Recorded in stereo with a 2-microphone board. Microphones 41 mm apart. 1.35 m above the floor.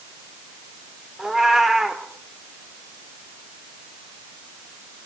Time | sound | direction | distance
1.2 | a cat meowing | 10° right (ahead or behind) | 2.5 m